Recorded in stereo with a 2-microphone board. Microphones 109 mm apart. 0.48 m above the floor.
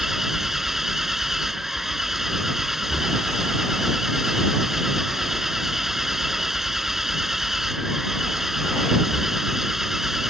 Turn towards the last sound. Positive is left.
turn(degrees=-5)  # may be behind; listen again after turning